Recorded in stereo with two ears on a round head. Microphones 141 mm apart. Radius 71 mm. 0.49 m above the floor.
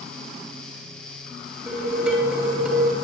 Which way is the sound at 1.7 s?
10° right (ahead or behind).